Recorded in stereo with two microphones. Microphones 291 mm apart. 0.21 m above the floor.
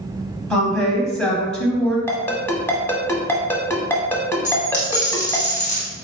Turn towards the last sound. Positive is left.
turn(degrees=25)  # may be behind; listen again after turning